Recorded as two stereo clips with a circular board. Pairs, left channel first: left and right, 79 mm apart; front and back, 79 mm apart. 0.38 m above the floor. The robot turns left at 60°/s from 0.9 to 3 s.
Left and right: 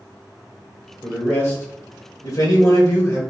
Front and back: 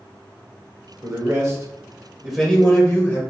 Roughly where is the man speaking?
Behind.